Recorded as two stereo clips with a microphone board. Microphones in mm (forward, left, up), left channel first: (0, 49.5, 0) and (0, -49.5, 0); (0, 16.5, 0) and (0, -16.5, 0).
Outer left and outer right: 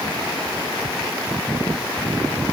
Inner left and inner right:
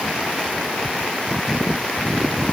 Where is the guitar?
No guitar in this recording.